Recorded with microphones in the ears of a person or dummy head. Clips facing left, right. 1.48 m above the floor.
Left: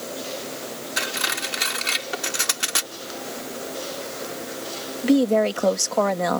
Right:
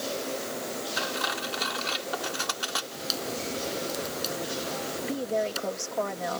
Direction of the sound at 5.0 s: 75° left (ahead or behind).